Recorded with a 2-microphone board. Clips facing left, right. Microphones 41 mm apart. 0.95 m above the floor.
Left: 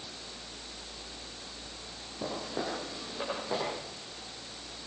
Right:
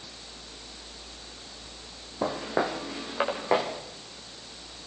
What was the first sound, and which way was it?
Footsteps, 80° right.